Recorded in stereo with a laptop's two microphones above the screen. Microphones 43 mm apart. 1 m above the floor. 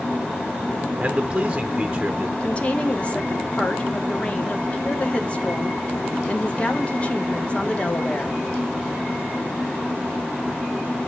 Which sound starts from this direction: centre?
A man speaking, at 1.0 s.